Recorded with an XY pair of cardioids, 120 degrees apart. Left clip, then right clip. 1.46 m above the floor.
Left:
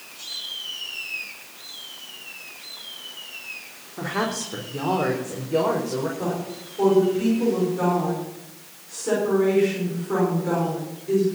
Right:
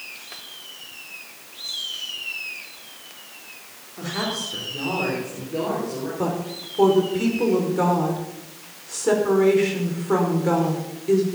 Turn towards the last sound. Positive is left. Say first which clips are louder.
# right 2 dB
turn(degrees=-35)